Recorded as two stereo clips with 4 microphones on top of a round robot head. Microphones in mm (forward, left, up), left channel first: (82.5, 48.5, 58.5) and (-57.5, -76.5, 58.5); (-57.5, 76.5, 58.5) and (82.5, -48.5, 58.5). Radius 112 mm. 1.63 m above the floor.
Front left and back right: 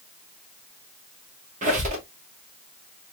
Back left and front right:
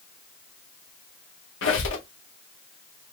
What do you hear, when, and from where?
1.6 s a squeak: 170° left, 1.4 m